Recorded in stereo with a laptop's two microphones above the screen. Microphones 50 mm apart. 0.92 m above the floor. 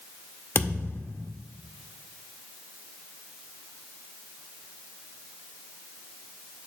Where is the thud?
50° left (ahead or behind), 0.8 m.